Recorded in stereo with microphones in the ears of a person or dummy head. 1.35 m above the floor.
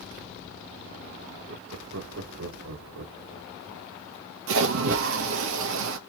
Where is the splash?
70° right (ahead or behind), 0.9 m.